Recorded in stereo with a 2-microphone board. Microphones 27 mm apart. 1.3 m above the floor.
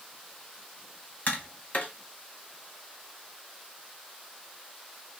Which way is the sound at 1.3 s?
60° left (ahead or behind).